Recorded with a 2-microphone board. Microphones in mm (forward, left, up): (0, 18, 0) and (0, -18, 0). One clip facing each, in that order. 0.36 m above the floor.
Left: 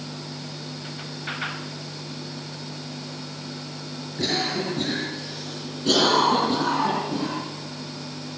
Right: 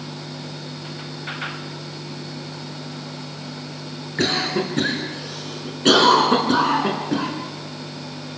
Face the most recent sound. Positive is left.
turn(degrees=-75)  # may be behind; listen again after turning